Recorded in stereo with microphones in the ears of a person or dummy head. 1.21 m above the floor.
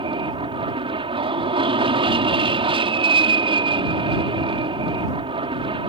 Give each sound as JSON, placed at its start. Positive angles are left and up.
{"t": 0.0, "sound": "an aircraft", "side_deg": -25}